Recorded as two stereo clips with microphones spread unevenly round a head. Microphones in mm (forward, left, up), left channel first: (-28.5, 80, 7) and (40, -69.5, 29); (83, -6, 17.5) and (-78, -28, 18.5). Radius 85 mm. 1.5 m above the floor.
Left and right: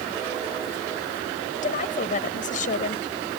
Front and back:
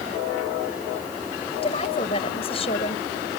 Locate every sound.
1.6 s a woman speaking: 70° left